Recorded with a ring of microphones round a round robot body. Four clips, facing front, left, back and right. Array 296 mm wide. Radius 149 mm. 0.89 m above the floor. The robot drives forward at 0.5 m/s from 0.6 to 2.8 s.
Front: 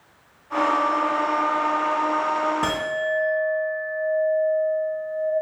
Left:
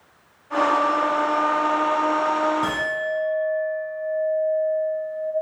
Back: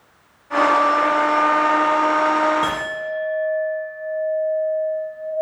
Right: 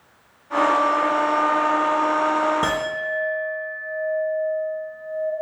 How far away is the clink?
About 0.8 m.